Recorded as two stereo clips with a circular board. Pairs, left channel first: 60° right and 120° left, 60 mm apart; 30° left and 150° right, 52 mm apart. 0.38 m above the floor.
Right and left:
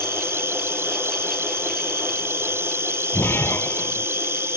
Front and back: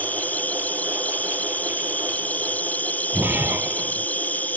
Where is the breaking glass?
105° right.